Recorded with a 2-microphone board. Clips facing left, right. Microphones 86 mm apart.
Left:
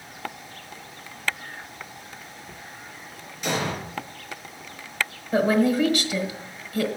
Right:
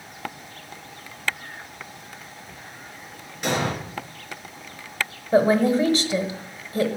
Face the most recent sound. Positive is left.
turn(degrees=-30)  # may be behind; listen again after turning